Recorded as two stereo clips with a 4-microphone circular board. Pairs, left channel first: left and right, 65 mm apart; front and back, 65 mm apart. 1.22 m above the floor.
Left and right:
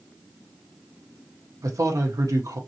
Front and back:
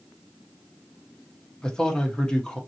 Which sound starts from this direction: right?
A man speaking, at 1.6 s.